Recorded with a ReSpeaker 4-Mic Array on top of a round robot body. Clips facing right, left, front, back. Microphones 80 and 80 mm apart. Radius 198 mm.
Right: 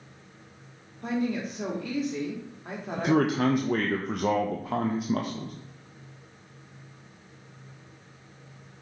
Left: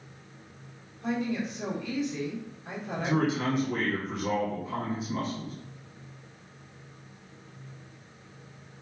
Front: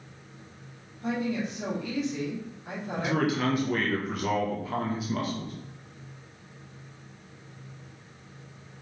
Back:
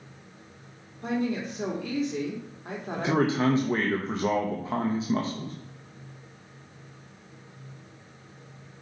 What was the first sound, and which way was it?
A woman speaking, 135° right.